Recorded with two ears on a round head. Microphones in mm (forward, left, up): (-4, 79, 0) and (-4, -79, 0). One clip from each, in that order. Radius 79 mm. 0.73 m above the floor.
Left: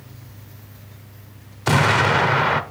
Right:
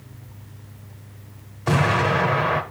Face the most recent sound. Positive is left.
turn(degrees=75)  # may be behind; listen again after turning